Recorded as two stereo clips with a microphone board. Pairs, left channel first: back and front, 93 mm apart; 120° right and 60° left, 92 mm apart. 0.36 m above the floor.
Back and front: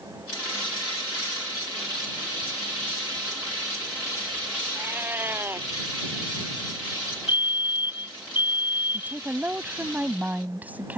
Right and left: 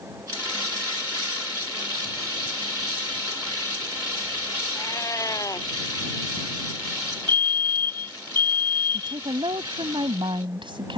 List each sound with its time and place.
4.8 s a cat meowing: 65° right
7.3 s a fire alarm: 60° left
8.9 s a woman speaking: 70° left